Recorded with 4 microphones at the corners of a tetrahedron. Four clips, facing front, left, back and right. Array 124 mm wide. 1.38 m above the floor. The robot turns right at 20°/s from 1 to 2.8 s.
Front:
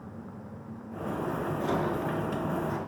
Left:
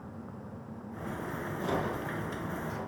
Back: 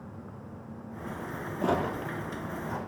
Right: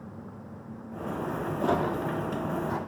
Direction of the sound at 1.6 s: 130° right.